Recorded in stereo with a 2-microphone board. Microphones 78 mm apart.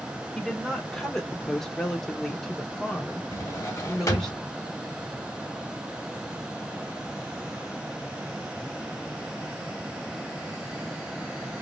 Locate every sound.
0.3 s a woman speaking: 5° left (ahead or behind), 1.5 m; by 4.3 s centre (ahead or behind), 1.4 m
3.3 s a drawer: 45° left (ahead or behind), 1.3 m